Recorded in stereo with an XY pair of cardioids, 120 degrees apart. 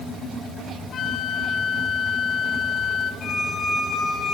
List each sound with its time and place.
0.9 s a flute: 50° left, 2.5 m
3.2 s a squeak: 45° left, 5.5 m